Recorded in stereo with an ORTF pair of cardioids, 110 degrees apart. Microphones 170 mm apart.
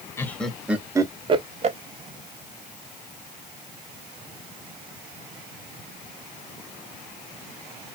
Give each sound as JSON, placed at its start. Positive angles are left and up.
{"t": 0.2, "sound": "laughter", "azimuth_deg": 15, "distance_m": 0.9}